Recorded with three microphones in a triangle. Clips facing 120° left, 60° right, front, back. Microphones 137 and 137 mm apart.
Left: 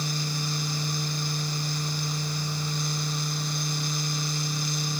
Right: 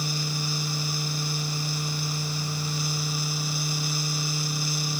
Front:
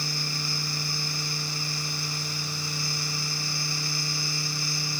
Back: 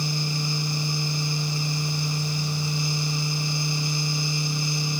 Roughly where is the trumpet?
I don't hear a trumpet.